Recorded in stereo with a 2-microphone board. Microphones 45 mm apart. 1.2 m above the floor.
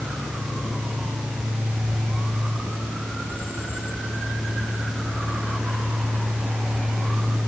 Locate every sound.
Only background noise.